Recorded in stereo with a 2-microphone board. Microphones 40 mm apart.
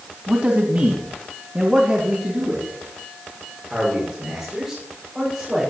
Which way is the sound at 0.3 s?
50° right (ahead or behind).